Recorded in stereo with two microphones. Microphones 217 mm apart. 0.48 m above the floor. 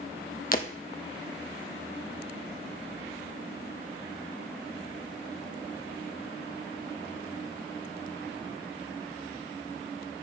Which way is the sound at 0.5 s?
40° left (ahead or behind).